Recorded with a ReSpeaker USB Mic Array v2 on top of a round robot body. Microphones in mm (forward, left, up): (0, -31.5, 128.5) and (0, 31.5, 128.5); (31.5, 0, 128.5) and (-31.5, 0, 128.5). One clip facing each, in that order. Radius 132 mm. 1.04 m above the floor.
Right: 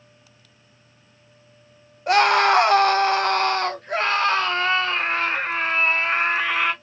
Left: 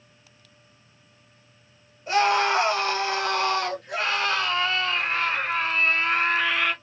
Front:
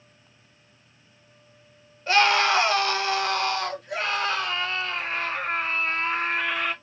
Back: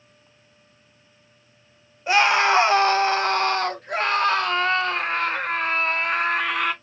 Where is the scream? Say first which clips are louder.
Right 5 dB, back 2 dB; 105° right, 1.3 m; by 6.7 s 155° right, 3 m.